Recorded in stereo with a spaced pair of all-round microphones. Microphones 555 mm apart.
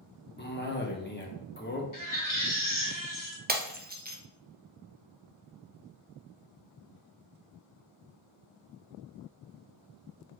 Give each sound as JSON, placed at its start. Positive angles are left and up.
{"t": 0.4, "sound": "a cough", "side_deg": 20, "distance_m": 0.9}
{"t": 1.9, "sound": "a baby crying", "side_deg": 35, "distance_m": 1.0}
{"t": 3.5, "sound": "breaking glass", "side_deg": -20, "distance_m": 0.6}